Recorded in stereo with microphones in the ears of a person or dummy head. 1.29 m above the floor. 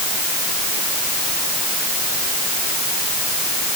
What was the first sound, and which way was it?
Only background noise.